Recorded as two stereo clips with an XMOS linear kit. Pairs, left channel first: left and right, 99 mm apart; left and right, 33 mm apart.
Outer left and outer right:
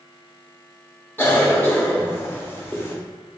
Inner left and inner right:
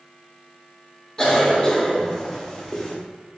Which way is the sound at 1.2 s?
20° left (ahead or behind).